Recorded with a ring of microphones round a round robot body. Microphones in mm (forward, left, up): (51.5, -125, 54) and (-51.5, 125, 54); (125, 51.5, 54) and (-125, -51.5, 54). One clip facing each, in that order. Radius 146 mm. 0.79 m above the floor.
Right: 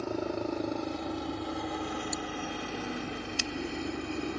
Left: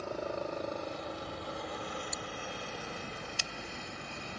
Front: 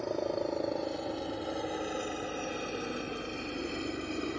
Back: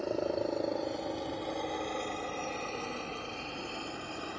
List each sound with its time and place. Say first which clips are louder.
0.0 s a helicopter: right 5 dB, even; 70° right; by 4.4 s 40° right